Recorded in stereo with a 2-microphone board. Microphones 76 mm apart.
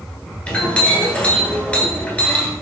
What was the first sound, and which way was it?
A clink, 15° left (ahead or behind).